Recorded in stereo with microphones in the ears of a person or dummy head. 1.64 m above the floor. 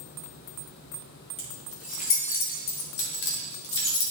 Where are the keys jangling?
25° left (ahead or behind), 1.3 m; by 4.1 s 60° left (ahead or behind), 1.4 m.